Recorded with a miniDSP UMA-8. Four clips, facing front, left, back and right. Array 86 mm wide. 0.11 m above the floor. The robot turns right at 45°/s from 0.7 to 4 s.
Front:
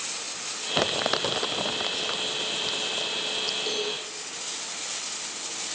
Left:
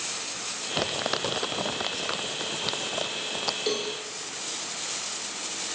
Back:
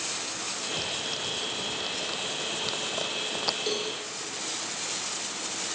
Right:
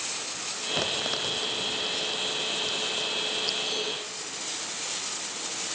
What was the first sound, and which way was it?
Crumpling, 10° left.